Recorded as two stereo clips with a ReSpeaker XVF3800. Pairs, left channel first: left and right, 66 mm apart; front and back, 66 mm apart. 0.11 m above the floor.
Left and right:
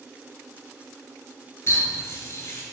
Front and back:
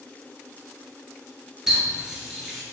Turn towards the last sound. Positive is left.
turn(degrees=105)